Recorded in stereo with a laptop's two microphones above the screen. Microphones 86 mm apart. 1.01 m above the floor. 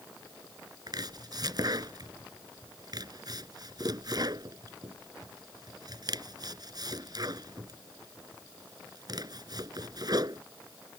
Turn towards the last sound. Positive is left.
turn(degrees=-50)  # may be behind; listen again after turning